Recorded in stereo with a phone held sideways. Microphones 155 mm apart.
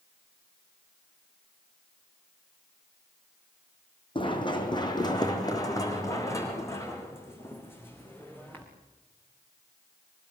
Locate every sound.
4.2 s running footsteps: 30° left (ahead or behind), 3 m; by 8.6 s 10° left (ahead or behind), 5 m